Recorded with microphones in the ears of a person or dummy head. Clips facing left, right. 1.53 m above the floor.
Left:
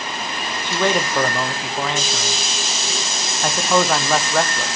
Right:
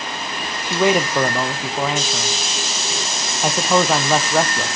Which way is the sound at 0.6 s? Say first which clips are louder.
Right 3 dB; centre (ahead or behind).